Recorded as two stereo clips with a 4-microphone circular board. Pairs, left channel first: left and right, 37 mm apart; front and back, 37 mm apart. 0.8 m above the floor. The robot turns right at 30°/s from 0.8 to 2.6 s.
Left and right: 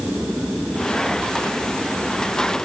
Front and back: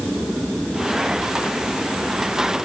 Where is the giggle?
I don't hear a giggle.